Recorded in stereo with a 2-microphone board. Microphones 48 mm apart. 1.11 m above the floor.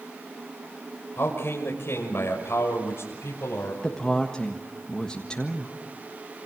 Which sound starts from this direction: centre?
A woman speaking, at 3.8 s.